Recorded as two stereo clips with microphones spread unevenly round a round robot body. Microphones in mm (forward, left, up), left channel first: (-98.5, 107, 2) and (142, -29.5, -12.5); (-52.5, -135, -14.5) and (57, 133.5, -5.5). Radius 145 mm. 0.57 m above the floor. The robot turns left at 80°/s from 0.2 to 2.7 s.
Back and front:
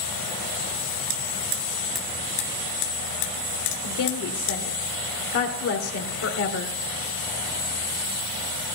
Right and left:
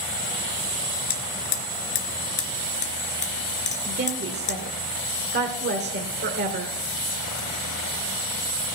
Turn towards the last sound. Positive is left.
turn(degrees=120)